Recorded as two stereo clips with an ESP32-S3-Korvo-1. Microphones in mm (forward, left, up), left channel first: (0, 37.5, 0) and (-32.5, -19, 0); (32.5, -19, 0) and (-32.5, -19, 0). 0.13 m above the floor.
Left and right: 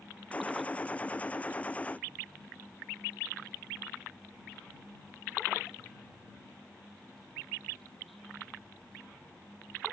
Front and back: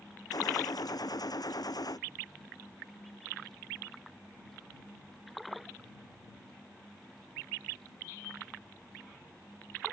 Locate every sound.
0.3 s a gunshot: 10° right